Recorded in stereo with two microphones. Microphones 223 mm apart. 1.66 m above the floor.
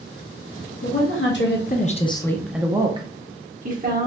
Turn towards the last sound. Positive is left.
turn(degrees=-40)  # may be behind; listen again after turning